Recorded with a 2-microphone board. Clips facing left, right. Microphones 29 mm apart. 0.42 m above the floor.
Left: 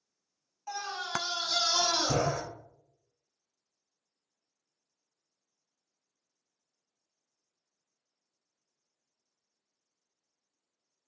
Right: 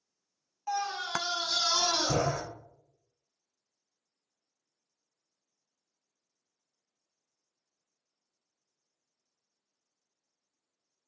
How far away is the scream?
About 0.9 m.